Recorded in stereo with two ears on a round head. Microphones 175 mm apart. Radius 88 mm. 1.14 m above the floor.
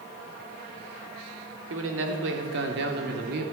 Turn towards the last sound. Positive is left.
turn(degrees=-50)  # may be behind; listen again after turning